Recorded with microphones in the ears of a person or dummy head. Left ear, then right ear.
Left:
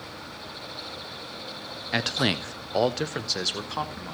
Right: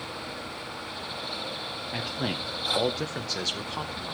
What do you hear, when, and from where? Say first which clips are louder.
1.9 s a man speaking: left 8 dB; 60° left (ahead or behind), 0.5 m; by 4.2 s 10° left (ahead or behind), 1.1 m